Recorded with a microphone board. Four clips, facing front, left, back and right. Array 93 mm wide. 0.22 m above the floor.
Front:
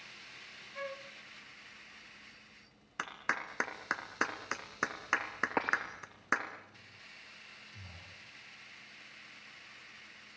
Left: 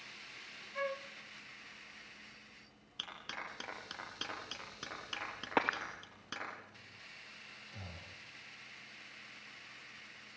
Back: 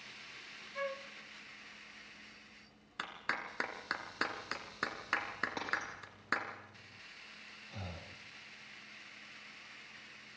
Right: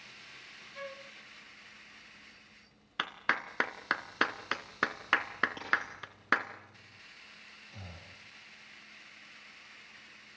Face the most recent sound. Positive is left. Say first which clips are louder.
# right 1 dB, back 5 dB
turn(degrees=-175)